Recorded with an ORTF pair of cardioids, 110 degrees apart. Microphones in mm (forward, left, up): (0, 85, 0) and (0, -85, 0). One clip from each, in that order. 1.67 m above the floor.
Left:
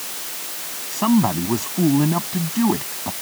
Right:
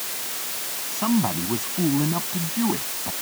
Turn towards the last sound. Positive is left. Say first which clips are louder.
# left 5 dB
turn(degrees=30)